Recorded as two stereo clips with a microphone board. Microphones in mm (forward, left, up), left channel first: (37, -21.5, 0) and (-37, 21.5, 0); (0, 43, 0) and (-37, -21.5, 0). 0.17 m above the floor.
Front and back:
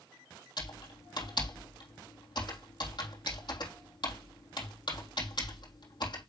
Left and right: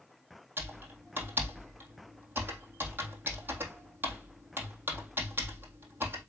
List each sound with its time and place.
0.6 s typing on a keyboard: 60° right, 3 m